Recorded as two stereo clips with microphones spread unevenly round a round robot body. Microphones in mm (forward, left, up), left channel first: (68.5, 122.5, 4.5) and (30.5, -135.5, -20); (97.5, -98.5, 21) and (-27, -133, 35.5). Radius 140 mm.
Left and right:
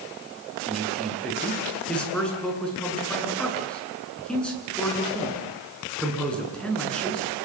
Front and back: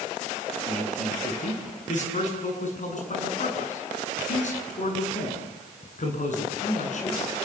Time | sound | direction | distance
0.7 | a man speaking | 5° right | 8 m